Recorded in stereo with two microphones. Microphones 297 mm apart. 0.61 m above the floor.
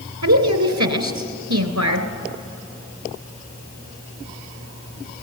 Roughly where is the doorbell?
No doorbell in this recording.